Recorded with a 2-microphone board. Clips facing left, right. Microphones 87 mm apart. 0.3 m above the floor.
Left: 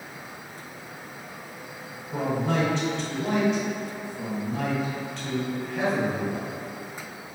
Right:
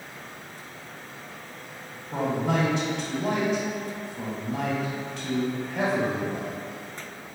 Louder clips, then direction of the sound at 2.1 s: Even; 10° right (ahead or behind).